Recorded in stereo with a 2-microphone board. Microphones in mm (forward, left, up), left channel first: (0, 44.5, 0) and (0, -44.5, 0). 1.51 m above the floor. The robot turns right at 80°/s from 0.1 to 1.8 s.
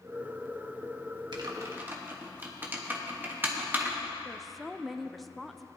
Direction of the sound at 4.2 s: Centre (ahead or behind).